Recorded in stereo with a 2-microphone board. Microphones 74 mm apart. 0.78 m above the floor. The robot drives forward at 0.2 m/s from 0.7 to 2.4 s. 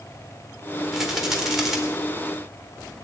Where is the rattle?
5° right (ahead or behind), 2 m.